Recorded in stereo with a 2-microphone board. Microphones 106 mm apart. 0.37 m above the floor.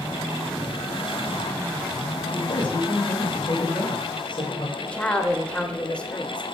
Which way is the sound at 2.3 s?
50° left (ahead or behind).